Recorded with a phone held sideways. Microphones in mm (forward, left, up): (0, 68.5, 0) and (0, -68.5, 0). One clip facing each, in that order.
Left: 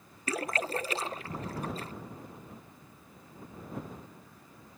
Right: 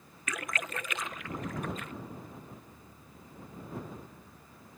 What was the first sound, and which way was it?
A splash, 35° left (ahead or behind).